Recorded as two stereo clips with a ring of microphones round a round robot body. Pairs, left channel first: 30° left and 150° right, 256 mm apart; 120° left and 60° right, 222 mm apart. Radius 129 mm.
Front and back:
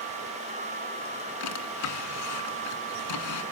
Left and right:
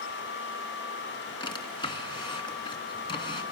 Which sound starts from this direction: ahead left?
A drawer, at 1.4 s.